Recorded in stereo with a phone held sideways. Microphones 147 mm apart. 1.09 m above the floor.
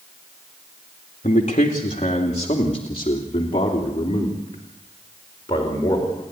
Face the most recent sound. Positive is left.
turn(degrees=30)  # may be behind; listen again after turning